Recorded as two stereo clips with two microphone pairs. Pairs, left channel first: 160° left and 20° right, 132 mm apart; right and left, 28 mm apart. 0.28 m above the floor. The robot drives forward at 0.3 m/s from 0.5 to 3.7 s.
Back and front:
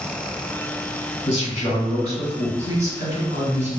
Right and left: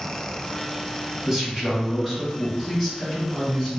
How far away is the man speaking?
About 1.4 m.